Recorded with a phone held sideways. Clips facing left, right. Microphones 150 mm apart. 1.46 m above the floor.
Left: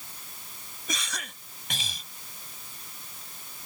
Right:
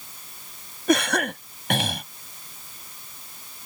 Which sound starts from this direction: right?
A cough, at 0.9 s.